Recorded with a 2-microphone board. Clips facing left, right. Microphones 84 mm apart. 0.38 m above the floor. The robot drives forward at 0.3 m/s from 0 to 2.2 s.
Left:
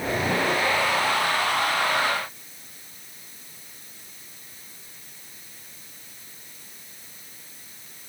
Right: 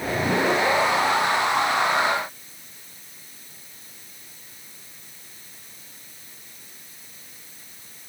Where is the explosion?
I don't hear an explosion.